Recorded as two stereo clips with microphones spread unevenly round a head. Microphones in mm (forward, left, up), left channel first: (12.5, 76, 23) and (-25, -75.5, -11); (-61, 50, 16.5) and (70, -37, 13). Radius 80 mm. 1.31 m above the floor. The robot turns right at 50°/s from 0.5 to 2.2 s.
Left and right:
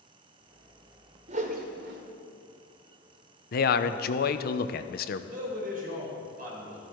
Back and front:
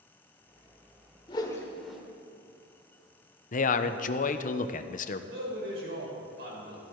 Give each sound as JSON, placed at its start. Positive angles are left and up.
{"t": 1.3, "sound": "a whoosh", "azimuth_deg": -155, "distance_m": 1.7}
{"t": 3.5, "sound": "a man speaking", "azimuth_deg": 110, "distance_m": 0.9}
{"t": 5.3, "sound": "a man speaking", "azimuth_deg": -65, "distance_m": 6.0}